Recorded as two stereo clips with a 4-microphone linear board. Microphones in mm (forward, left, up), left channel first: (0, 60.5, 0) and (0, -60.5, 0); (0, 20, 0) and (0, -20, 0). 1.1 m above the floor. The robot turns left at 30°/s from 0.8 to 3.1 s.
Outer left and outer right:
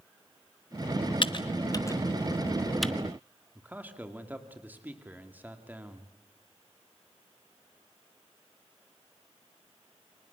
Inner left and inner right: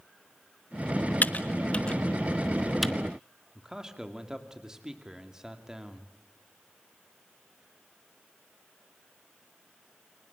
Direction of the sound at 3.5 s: 15° right (ahead or behind).